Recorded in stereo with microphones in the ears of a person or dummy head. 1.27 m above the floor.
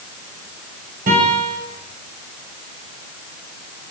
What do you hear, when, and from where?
1.1 s a guitar: 40° right (ahead or behind), 8.5 m